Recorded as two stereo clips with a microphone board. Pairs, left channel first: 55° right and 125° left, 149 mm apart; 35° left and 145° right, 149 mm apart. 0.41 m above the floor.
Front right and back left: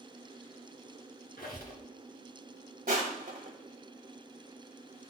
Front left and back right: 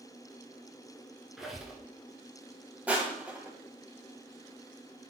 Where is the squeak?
60° right, 1.9 m.